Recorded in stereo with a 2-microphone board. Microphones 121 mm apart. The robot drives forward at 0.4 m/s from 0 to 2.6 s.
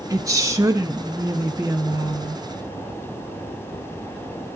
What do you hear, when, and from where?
0.1 s a woman speaking: 25° right (ahead or behind), 1.3 m; by 2.4 s 20° right (ahead or behind), 1.8 m